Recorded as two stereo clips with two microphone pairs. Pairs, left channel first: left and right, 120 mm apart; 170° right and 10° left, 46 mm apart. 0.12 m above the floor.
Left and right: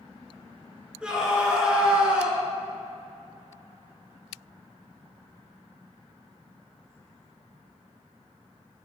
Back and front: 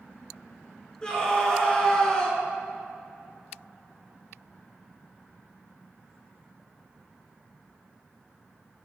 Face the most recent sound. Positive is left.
turn(degrees=-150)